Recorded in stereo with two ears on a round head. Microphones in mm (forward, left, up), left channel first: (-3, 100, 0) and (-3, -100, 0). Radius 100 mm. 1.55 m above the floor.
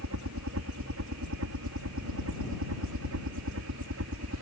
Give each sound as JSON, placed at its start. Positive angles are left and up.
{"t": 0.0, "sound": "a helicopter", "side_deg": -70}